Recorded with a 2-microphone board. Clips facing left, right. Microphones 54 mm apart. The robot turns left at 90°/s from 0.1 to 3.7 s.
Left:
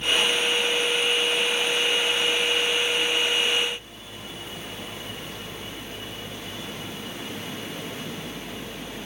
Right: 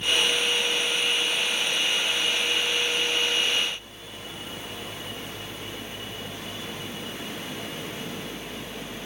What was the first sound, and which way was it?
Only background noise.